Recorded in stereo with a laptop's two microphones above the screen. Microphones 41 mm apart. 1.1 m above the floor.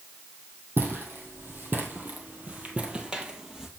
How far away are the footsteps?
About 2 m.